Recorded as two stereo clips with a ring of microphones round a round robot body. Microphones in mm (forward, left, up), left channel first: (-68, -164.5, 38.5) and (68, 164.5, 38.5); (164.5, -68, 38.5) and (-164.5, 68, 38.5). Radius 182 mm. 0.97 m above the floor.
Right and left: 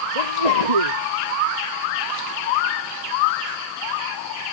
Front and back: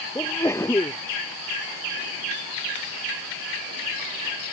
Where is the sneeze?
60° left.